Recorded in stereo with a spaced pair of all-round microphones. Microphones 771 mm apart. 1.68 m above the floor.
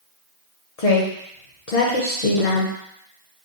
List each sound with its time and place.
0.8 s a woman speaking: 50° left (ahead or behind), 1.0 m